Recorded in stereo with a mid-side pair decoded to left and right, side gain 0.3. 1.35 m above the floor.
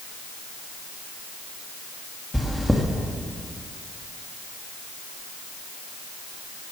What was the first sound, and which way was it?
Chewing, 10° left.